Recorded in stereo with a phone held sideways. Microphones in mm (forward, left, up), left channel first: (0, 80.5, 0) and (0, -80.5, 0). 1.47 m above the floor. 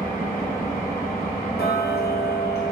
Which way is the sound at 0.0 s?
15° left (ahead or behind).